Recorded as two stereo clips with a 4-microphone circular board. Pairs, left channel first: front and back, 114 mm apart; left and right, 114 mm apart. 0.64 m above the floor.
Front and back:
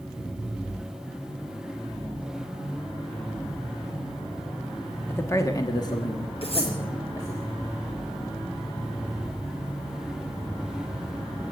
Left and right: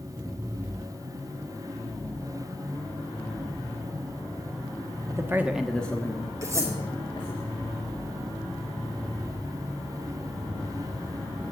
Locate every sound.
5.1 s a man speaking: 60° right, 1.3 m; by 7.4 s 50° left, 3 m
6.4 s cutlery clinking: 30° right, 5 m